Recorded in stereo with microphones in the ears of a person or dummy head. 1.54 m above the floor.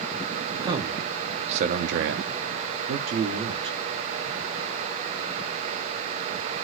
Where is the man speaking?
20° right (ahead or behind), 1.2 m; by 3.8 s 30° right (ahead or behind), 1.0 m.